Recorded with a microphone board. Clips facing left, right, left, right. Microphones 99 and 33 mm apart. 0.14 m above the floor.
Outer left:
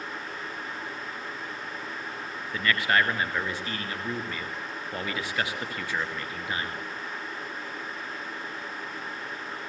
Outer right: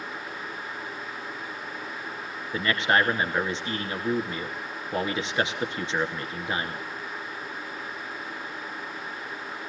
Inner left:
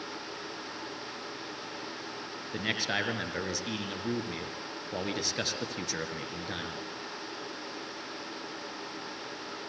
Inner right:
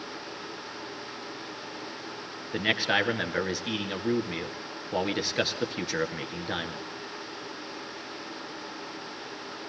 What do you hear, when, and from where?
2.5 s a man speaking: 25° right (ahead or behind), 2 m